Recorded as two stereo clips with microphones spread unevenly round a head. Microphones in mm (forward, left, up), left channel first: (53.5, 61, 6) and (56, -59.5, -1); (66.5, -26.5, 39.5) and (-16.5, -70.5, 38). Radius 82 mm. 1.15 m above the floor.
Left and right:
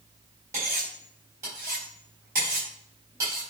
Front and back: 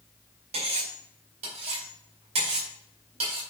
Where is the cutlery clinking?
165° right, 4 m.